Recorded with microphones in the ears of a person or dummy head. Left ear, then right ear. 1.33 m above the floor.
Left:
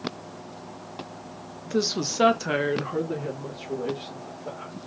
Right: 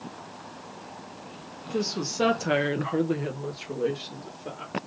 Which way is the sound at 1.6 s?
50° left (ahead or behind).